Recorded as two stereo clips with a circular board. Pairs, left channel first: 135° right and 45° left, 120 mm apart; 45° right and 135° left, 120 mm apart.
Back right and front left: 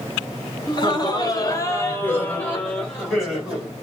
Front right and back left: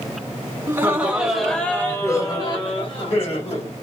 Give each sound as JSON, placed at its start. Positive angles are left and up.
{"t": 0.7, "sound": "laughter", "azimuth_deg": -165, "distance_m": 1.9}